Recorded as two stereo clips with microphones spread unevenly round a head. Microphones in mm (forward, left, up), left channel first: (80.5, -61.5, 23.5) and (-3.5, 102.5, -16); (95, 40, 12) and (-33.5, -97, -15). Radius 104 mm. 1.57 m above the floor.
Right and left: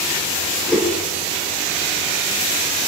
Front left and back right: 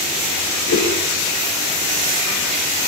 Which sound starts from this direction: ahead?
A whoosh, at 0.7 s.